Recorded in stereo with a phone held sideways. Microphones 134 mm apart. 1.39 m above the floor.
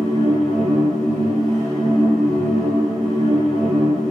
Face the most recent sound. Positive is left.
turn(degrees=-5)  # may be behind; listen again after turning